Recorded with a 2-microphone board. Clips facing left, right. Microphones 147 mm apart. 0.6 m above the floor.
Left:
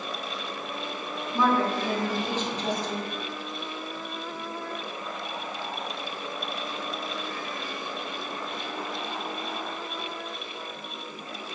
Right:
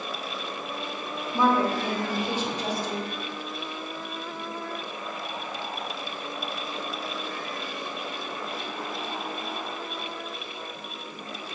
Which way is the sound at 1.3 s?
10° right (ahead or behind).